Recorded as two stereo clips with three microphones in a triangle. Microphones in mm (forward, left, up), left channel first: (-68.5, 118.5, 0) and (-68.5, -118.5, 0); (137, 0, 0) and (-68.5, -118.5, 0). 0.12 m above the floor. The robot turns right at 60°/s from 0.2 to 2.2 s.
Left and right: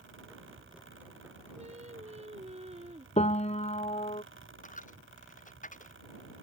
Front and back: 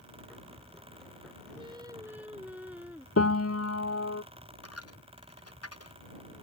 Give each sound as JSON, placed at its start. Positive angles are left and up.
{"t": 1.6, "sound": "singing", "azimuth_deg": -110}
{"t": 3.2, "sound": "a piano", "azimuth_deg": 30}
{"t": 4.6, "sound": "a dropped coin", "azimuth_deg": 35}